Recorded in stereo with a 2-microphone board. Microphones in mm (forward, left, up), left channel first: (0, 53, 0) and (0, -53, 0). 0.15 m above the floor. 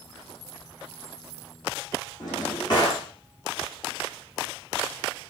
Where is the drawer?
40° left (ahead or behind), 6.5 m.